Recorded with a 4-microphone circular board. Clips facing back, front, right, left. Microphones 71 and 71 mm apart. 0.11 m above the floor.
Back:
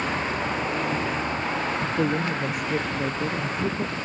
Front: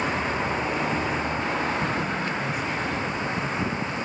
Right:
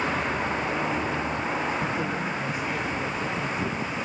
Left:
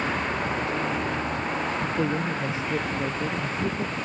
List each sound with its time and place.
2.0 s a woman speaking: 150° left